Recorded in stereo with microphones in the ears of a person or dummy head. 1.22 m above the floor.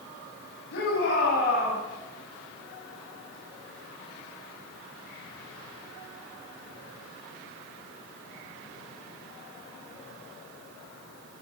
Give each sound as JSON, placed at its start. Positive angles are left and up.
{"t": 0.7, "sound": "a shout", "side_deg": 70, "distance_m": 9.5}